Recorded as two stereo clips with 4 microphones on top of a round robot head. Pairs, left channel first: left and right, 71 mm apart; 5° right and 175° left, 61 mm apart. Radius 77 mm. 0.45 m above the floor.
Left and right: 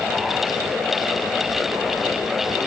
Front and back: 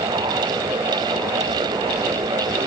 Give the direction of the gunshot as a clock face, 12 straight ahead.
I don't hear a gunshot.